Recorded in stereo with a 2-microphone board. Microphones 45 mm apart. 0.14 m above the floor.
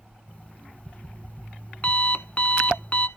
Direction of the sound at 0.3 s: 35° left (ahead or behind).